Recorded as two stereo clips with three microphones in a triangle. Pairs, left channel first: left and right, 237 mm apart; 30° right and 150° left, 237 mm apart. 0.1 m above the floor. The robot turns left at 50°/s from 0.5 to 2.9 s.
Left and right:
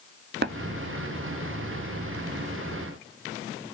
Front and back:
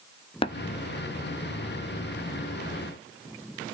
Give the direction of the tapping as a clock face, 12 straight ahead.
3 o'clock.